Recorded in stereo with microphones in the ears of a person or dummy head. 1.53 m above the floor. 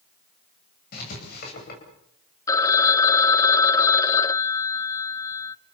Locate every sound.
0.9 s writing: 55° left (ahead or behind), 9.5 m
2.5 s a phone ringing: 20° left (ahead or behind), 0.8 m